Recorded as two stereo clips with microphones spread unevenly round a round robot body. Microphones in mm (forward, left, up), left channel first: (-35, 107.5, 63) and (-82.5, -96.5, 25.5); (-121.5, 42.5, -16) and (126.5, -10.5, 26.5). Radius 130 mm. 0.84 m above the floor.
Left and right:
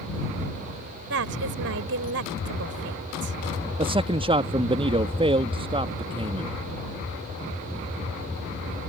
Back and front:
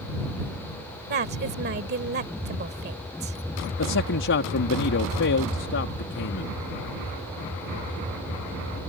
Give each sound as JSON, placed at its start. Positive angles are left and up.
{"t": 1.1, "sound": "a woman speaking", "azimuth_deg": -65}
{"t": 3.8, "sound": "a man speaking", "azimuth_deg": -160}